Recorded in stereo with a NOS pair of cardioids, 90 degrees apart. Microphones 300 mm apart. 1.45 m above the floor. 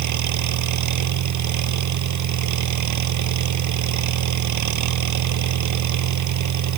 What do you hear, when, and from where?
0.0 s an engine running: 70° right